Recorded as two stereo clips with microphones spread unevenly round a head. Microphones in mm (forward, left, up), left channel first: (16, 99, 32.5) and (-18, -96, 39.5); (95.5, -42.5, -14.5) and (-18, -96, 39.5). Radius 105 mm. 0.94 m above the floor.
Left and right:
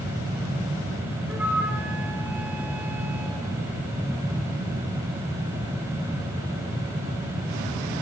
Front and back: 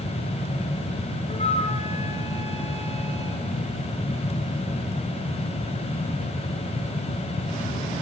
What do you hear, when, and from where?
1.3 s a flute: 20° right, 3.5 m